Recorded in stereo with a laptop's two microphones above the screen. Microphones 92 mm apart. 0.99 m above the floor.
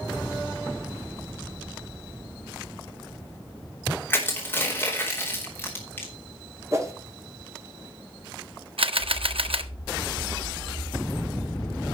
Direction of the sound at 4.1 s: 20° left (ahead or behind).